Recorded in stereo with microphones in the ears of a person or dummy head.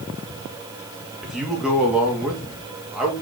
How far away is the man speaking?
About 2.5 m.